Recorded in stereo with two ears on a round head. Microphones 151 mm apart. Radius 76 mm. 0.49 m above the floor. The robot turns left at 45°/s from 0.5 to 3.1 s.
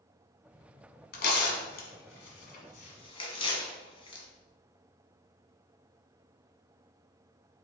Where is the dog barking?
I don't hear a dog barking.